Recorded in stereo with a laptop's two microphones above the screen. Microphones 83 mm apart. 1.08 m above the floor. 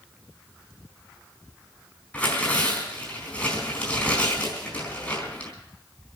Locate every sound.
2.1 s tearing paper: 15° left (ahead or behind), 4 m